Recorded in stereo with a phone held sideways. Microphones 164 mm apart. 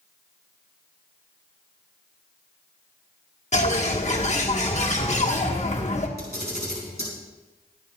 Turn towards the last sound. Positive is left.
turn(degrees=-75)  # may be behind; listen again after turning